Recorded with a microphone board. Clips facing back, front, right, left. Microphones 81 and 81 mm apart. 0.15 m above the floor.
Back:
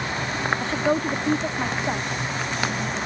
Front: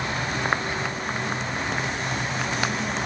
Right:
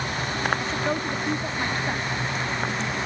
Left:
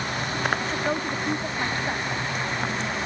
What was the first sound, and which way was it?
A woman speaking, straight behind.